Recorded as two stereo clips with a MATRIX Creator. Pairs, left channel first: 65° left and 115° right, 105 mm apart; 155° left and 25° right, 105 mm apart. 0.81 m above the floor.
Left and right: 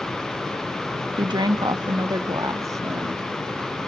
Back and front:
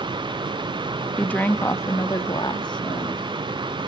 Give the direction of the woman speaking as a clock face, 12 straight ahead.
4 o'clock.